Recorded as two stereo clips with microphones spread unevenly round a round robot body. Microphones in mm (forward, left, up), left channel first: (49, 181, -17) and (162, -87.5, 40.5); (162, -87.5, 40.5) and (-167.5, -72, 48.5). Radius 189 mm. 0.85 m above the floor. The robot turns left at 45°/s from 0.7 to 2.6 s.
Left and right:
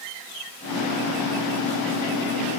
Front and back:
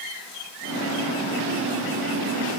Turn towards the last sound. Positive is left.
No sound to turn to.